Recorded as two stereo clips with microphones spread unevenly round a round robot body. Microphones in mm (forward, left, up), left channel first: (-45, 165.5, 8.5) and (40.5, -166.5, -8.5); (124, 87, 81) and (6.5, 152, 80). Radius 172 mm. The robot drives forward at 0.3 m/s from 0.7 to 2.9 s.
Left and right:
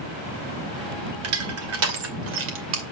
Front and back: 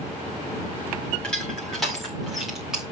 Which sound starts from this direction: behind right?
Crushing, at 1.2 s.